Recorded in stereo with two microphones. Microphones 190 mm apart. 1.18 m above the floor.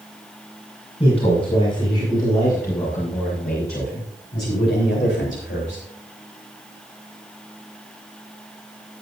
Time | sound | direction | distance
1.0 | a man speaking | 35° left (ahead or behind) | 6.5 m